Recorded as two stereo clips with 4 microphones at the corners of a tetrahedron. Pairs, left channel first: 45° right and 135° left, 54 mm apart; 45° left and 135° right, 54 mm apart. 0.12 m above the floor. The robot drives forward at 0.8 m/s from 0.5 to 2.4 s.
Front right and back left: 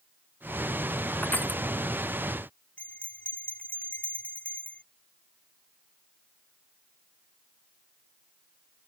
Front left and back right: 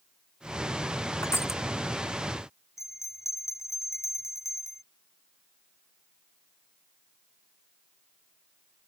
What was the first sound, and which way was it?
Crushing, 10° left.